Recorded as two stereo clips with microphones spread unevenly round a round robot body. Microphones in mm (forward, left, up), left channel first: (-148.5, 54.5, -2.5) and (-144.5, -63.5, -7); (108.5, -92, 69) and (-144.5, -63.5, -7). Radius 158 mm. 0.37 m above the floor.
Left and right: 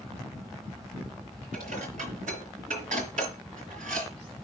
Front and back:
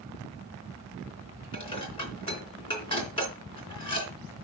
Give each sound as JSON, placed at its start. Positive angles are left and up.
{"t": 1.5, "sound": "dishes clattering", "azimuth_deg": -80, "distance_m": 4.0}